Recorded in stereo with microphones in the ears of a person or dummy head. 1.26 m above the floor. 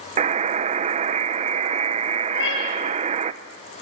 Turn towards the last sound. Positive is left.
turn(degrees=70)  # may be behind; listen again after turning